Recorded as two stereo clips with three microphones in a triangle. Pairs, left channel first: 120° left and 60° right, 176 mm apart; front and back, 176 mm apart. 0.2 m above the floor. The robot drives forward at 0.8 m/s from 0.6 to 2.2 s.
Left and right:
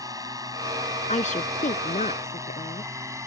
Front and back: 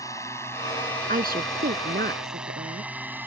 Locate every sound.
0.0 s a drone: 35° right; by 3.3 s 115° right
1.1 s a woman speaking: 160° left; by 2.9 s 165° left